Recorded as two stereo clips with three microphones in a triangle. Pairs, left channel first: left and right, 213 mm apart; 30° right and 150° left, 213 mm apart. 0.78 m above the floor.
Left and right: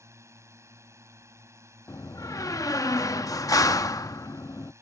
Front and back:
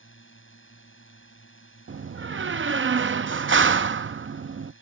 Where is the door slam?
160° left.